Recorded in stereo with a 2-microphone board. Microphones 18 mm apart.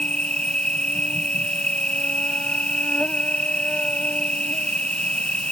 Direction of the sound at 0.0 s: 75° left (ahead or behind).